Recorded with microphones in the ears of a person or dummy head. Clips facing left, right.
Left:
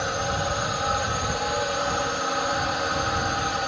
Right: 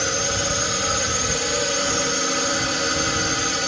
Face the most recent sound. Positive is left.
turn(degrees=-35)  # may be behind; listen again after turning